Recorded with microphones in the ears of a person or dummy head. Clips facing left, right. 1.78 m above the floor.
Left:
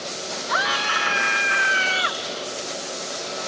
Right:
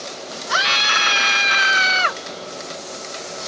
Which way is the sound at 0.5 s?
45° right (ahead or behind).